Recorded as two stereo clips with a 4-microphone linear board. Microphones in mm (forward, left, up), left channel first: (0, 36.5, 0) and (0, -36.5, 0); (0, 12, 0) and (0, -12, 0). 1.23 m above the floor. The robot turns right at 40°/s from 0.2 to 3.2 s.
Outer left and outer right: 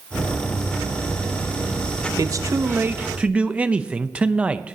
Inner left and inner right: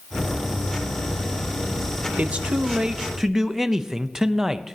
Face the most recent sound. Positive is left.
turn(degrees=-15)